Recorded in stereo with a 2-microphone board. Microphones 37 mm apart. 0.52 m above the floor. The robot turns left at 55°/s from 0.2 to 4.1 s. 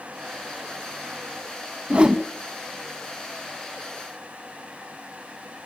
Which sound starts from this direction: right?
A whoosh, at 1.9 s.